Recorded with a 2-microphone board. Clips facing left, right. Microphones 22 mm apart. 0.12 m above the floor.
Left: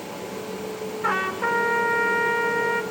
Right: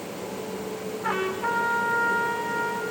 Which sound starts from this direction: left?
A trumpet, at 1.0 s.